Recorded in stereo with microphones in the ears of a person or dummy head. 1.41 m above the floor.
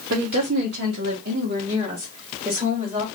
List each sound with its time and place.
0.1 s a woman speaking: 80° right, 1.3 m; by 3.0 s 15° right (ahead or behind), 2.5 m